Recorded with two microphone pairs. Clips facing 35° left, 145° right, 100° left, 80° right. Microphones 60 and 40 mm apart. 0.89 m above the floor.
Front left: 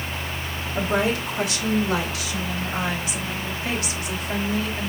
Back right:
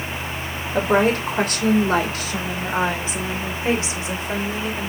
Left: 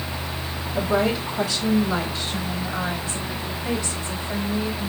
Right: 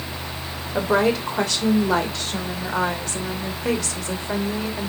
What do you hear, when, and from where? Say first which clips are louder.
0.7 s a woman speaking: back right 5 dB, right 3 dB; 110° right, 3 m; by 4.9 s 70° right, 3 m